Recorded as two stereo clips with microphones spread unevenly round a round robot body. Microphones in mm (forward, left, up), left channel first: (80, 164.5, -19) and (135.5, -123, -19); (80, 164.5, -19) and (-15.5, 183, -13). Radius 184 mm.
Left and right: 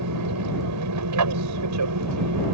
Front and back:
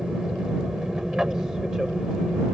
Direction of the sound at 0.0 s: 105° right.